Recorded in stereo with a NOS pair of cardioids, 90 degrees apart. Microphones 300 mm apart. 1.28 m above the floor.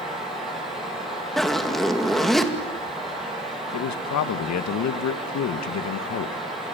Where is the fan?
Straight ahead, 10 m.